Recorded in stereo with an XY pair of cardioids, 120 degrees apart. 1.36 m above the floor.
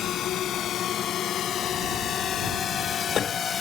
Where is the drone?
60° left; by 3.6 s 40° left.